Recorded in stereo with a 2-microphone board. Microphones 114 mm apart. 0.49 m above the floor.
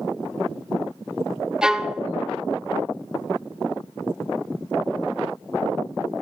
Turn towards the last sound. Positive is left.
turn(degrees=-5)  # may be behind; listen again after turning